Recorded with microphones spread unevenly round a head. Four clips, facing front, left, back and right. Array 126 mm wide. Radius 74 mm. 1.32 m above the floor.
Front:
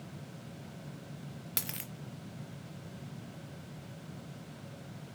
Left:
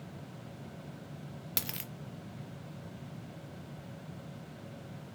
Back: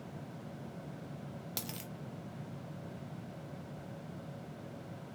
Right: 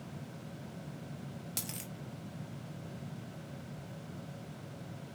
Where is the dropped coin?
120° left, 0.6 m.